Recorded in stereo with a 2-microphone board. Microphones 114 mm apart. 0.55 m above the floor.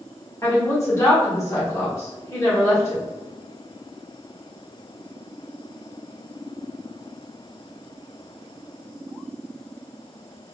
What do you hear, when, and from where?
0.4 s a woman speaking: 25° left (ahead or behind), 1.1 m